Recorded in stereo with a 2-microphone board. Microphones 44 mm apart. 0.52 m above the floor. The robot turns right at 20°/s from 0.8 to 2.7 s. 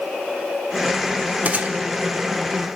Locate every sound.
1.4 s a gunshot: 40° right (ahead or behind), 1.2 m; by 1.8 s 35° right (ahead or behind), 1.2 m